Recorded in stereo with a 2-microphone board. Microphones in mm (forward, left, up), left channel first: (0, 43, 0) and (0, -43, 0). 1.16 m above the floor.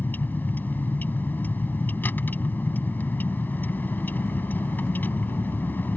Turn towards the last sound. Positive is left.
turn(degrees=20)  # may be behind; listen again after turning